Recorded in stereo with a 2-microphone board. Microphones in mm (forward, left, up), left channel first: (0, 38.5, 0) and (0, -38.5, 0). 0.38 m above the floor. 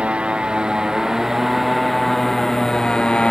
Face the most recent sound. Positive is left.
turn(degrees=15)  # may be behind; listen again after turning